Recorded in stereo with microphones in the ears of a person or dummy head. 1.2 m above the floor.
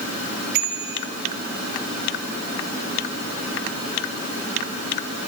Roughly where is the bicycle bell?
Right.